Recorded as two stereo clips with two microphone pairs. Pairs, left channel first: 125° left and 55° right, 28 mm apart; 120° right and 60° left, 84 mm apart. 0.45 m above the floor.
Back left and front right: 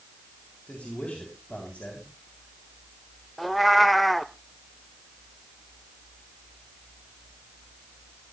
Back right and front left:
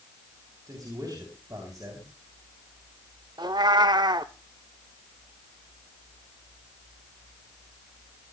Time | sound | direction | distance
0.7 | a man speaking | 95° left | 4 m
3.4 | a cat meowing | 40° left | 0.6 m